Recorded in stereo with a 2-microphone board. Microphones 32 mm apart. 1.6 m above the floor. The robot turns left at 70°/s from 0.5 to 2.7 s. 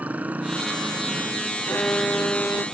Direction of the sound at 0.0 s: 55° right.